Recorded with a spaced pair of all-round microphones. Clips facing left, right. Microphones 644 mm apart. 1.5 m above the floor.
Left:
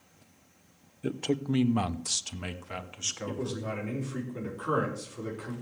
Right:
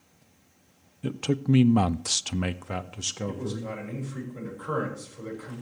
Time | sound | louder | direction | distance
1.0 | a man speaking | right 3 dB | 30° right (ahead or behind) | 0.7 m
3.3 | a man speaking | even | 80° left | 4.5 m